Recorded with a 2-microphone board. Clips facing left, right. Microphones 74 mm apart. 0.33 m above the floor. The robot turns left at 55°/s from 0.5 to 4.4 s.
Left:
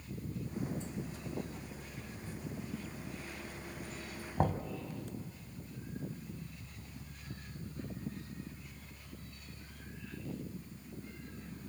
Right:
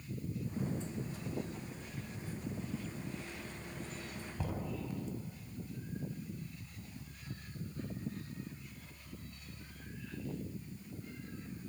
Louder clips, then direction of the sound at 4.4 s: Left 8 dB; 50° left (ahead or behind).